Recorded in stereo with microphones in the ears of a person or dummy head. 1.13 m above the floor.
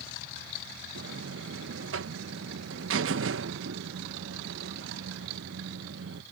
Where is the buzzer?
65° right (ahead or behind).